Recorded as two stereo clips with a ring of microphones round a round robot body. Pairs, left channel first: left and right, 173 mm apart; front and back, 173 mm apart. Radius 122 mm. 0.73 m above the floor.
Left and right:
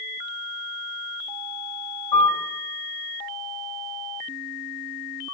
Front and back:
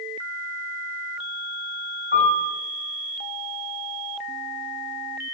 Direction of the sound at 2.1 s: 40° left.